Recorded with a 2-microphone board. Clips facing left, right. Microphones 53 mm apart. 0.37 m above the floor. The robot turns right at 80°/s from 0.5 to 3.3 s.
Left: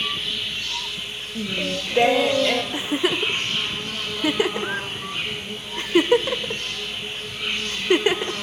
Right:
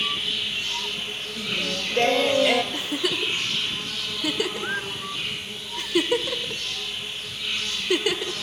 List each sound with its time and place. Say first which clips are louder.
0.0 s an insect: even; 175° right, 5.5 m; by 8.4 s 50° left, 5.5 m
1.4 s singing: left 3 dB; 100° left, 0.6 m; by 2.6 s 160° right, 0.6 m
2.7 s a giggle: left 4 dB; 20° left (ahead or behind), 0.5 m; by 8.3 s 35° left (ahead or behind), 0.5 m